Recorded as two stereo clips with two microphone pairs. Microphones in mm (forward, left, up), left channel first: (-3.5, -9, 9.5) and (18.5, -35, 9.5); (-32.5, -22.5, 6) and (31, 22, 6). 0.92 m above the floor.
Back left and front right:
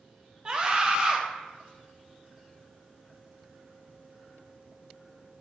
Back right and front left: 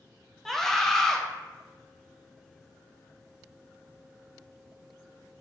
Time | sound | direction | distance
0.5 | a scream | 65° right | 0.6 m